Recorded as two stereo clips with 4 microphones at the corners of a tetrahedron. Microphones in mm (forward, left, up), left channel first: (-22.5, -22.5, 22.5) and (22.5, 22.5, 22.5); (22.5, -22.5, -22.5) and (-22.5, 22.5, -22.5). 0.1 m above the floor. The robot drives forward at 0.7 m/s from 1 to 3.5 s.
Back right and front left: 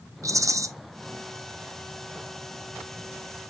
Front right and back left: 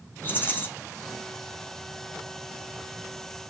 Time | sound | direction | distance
0.2 | a rattle | 15° left | 1.0 m